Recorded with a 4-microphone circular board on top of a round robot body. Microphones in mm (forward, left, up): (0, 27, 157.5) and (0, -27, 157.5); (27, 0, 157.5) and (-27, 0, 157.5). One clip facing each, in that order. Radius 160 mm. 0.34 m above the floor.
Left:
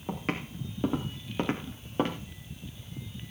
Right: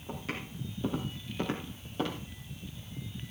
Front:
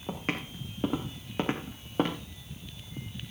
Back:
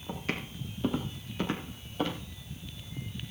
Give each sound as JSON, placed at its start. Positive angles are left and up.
{"t": 0.1, "sound": "footsteps", "azimuth_deg": 55, "distance_m": 5.0}